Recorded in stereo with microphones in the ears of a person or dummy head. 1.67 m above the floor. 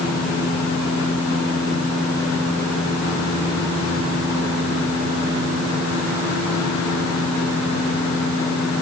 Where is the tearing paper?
I don't hear tearing paper.